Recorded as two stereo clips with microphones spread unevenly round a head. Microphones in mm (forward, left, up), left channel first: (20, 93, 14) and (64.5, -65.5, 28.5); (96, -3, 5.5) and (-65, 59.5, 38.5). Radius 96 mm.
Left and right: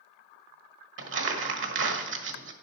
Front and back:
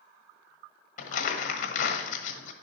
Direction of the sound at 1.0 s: 70° right.